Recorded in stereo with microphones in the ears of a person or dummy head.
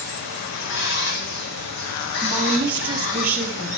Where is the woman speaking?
10° right (ahead or behind), 1.7 m.